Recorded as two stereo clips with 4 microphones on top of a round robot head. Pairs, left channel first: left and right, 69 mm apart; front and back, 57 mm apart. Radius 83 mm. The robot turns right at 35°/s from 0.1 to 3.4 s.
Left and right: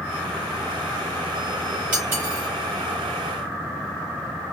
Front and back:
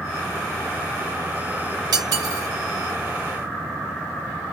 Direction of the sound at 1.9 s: 165° right.